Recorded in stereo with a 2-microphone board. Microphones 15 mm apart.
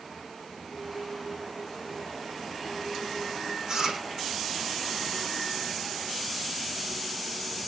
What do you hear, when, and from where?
3.7 s chewing: 45° right (ahead or behind), 8.5 m